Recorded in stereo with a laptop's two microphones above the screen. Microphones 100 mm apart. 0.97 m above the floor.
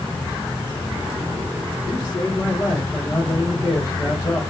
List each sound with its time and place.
1.9 s a man speaking: 40° left (ahead or behind), 1.3 m